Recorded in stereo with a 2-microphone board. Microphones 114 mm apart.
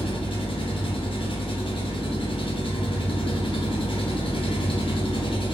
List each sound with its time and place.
0.0 s an engine running: 50° left (ahead or behind), 1.2 m